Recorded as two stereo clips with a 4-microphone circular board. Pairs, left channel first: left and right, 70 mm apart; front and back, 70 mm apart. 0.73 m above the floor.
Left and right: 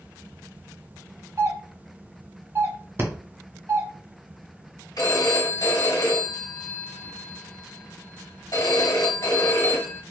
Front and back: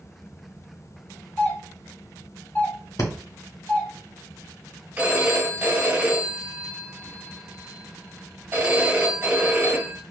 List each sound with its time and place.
1.4 s a doorbell: 60° right, 2.0 m
3.0 s breathing: 35° right, 0.9 m
5.0 s a phone ringing: 115° left, 1.5 m